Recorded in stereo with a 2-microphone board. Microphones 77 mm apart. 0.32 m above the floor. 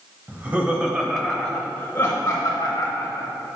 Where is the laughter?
25° right (ahead or behind), 1.2 m; by 3.3 s 55° left (ahead or behind), 1.5 m.